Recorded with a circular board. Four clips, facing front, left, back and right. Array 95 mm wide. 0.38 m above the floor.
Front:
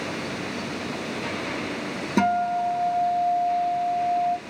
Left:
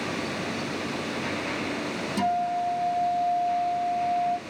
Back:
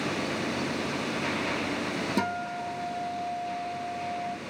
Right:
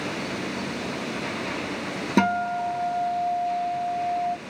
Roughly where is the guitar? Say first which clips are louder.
Right 3 dB, front 14 dB; ahead right.